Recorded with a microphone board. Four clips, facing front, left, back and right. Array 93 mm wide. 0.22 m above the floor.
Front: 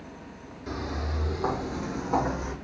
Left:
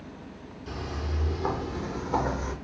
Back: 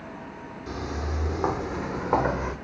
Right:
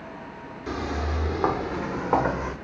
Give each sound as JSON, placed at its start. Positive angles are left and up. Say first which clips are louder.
{"t": 0.7, "sound": "footsteps", "louder": "right 7 dB, even", "azimuth_deg": -90, "distance_m": 2.0}